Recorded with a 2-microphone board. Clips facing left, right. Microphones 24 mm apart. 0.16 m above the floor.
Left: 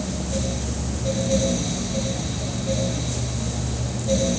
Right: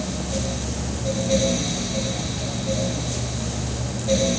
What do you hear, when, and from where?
Only background noise.